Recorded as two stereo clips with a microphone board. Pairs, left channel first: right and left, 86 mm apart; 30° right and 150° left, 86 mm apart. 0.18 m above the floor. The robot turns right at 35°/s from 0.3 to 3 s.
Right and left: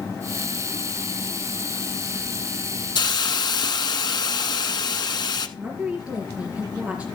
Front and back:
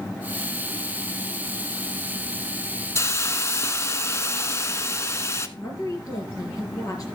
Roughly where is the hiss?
Right.